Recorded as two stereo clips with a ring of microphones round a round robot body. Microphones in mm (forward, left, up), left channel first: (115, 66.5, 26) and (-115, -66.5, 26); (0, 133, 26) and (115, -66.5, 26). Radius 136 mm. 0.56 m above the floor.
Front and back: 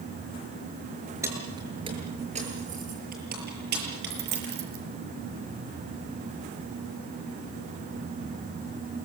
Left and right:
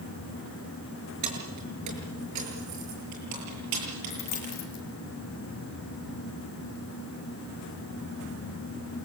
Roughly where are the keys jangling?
Right.